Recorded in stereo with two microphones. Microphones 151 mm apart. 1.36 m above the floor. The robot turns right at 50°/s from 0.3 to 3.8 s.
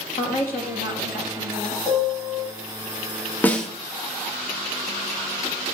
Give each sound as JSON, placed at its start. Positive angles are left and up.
{"t": 0.2, "sound": "a woman speaking", "azimuth_deg": 65, "distance_m": 2.0}
{"t": 1.9, "sound": "a piano", "side_deg": -5, "distance_m": 5.0}
{"t": 3.4, "sound": "a snare drum", "side_deg": 10, "distance_m": 0.9}